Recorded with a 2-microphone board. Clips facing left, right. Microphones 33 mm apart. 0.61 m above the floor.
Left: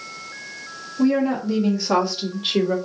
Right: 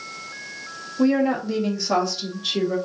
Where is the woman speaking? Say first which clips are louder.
Even; 15° right (ahead or behind), 1.4 m; by 2.8 s 40° left (ahead or behind), 1.2 m.